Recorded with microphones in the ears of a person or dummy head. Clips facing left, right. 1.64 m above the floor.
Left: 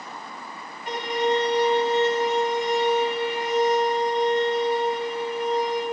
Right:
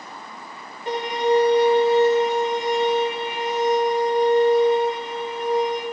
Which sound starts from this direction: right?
A violin, at 0.9 s.